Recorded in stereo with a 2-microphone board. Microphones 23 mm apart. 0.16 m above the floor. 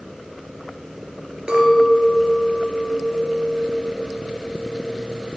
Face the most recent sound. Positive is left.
turn(degrees=-45)  # may be behind; listen again after turning